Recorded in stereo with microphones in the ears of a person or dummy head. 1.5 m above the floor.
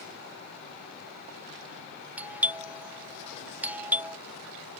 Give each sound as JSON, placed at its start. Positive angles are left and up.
{"t": 2.2, "sound": "a doorbell", "side_deg": -10}